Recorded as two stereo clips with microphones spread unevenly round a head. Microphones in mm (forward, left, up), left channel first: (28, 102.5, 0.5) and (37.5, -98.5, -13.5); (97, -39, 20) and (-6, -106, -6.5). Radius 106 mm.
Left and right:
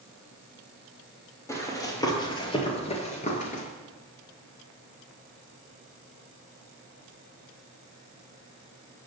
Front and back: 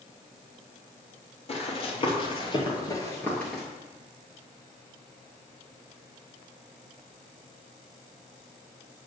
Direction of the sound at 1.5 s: 20° left.